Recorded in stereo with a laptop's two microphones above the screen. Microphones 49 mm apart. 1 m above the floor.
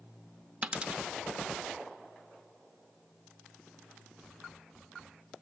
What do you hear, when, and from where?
0.6 s a dropped coin: 25° right (ahead or behind), 0.7 m